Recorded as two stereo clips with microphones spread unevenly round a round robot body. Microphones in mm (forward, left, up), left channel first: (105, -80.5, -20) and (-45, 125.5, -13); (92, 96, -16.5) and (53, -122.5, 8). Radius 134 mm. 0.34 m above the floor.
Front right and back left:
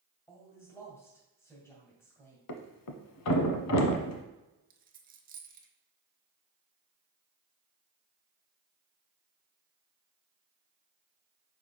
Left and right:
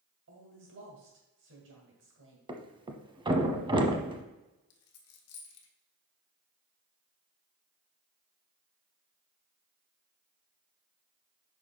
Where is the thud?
30° right, 1.0 m.